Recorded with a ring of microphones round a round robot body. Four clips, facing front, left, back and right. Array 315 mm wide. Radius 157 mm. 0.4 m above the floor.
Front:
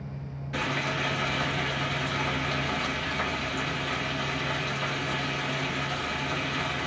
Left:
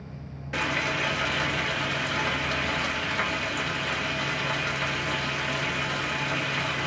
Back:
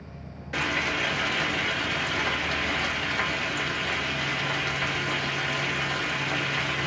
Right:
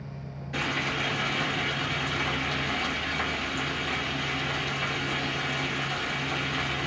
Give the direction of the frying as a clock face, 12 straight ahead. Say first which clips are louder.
Left 2 dB, back 1 dB; 8 o'clock.